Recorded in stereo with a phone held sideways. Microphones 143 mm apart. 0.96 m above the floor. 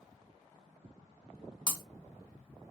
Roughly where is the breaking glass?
Right.